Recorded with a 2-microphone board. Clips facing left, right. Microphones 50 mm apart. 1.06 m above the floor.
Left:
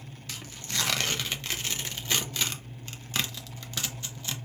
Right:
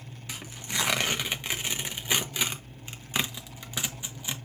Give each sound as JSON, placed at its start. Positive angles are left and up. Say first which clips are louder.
{"t": 0.3, "sound": "tearing paper", "louder": "right 2 dB", "side_deg": -15, "distance_m": 0.6}